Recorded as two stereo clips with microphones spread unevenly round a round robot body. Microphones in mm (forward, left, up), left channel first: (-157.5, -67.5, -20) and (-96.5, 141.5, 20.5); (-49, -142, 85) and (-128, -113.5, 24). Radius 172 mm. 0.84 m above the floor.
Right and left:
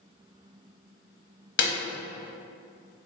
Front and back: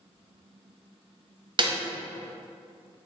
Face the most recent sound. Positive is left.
turn(degrees=-140)